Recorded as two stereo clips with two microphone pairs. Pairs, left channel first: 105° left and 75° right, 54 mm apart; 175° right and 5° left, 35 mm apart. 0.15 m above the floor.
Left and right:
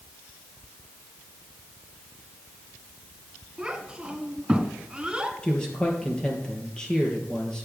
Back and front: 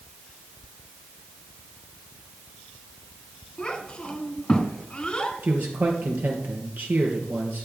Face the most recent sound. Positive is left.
turn(degrees=30)